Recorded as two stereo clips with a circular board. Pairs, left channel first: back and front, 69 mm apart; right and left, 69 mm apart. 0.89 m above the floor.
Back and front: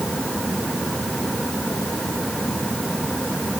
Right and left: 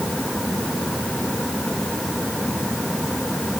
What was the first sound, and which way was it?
Only background noise.